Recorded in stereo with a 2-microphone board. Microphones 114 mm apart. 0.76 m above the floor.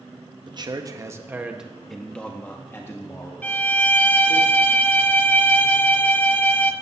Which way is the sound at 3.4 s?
15° left (ahead or behind).